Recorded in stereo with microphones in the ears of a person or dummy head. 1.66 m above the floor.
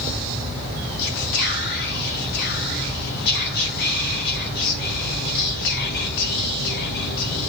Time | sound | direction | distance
1.0 | whispering | 55° left (ahead or behind) | 0.7 m